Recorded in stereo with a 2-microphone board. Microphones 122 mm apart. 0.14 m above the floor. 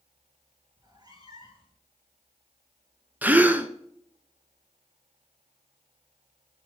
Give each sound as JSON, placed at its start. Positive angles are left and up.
{"t": 0.8, "sound": "a cat meowing", "side_deg": -35, "distance_m": 3.0}
{"t": 3.2, "sound": "a gasp", "side_deg": -15, "distance_m": 0.7}